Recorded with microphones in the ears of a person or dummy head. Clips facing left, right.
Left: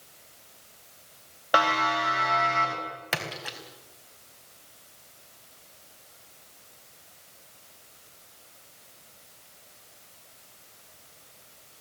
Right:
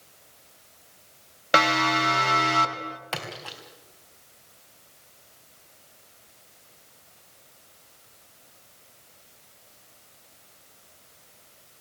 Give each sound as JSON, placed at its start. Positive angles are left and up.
{"t": 1.5, "sound": "a siren", "side_deg": -30, "distance_m": 4.0}
{"t": 3.1, "sound": "a splash", "side_deg": 25, "distance_m": 3.5}